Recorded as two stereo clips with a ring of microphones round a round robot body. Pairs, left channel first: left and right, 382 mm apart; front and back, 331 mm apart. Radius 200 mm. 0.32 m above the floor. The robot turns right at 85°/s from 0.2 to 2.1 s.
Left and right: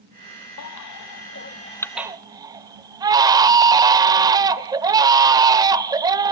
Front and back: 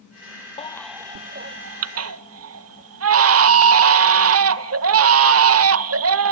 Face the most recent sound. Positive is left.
turn(degrees=-165)